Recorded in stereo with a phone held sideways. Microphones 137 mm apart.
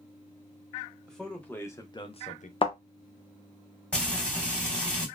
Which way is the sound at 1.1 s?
5° left (ahead or behind).